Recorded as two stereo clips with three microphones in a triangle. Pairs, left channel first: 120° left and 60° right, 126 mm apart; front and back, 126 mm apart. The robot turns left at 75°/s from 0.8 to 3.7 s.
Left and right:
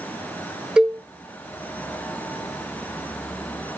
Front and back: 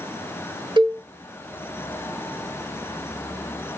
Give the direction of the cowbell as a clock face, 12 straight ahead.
5 o'clock.